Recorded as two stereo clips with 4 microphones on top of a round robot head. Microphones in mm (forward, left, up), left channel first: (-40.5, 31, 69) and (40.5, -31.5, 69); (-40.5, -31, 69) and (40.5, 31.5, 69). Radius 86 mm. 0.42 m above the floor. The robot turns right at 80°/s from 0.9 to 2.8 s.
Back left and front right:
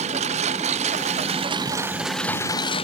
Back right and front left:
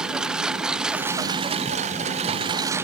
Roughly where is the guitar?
No guitar in this recording.